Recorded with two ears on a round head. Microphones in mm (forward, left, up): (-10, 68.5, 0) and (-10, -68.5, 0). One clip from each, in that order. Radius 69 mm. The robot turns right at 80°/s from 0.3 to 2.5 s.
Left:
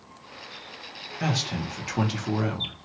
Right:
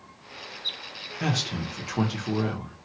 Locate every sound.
1.2 s a man speaking: centre (ahead or behind), 0.8 m; by 2.8 s 30° left (ahead or behind), 0.8 m